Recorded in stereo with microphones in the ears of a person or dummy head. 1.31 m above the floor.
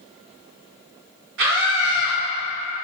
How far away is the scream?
About 2.0 m.